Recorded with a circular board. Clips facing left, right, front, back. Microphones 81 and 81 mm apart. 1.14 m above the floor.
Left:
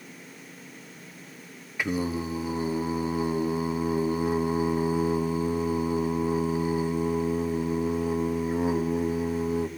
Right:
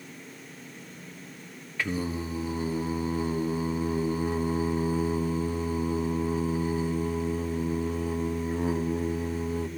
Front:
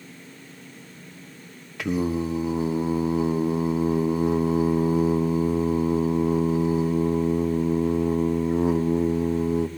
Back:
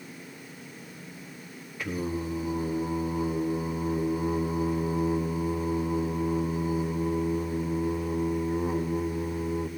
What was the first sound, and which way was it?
Singing, 15° left.